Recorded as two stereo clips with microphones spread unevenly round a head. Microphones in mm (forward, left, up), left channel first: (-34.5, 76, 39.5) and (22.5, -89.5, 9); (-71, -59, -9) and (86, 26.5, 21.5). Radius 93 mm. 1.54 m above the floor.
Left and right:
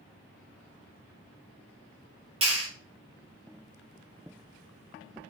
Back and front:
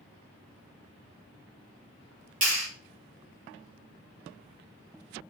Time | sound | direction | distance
2.4 | a clap | 10° right | 1.3 m